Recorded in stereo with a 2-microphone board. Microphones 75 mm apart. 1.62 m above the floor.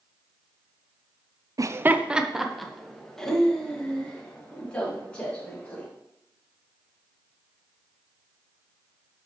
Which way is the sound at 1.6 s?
50° right (ahead or behind).